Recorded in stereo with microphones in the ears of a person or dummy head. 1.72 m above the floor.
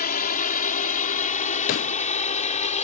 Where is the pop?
50° left (ahead or behind).